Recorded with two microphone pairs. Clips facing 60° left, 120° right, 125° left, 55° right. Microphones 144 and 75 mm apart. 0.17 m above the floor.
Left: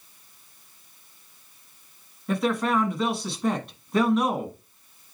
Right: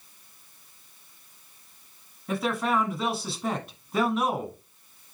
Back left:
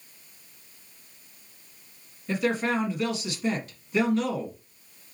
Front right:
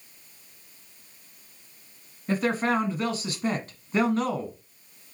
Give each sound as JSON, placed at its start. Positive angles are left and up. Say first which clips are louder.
{"t": 2.3, "sound": "a man speaking", "louder": "left 3 dB, front right 1 dB", "azimuth_deg": -35, "distance_m": 1.3}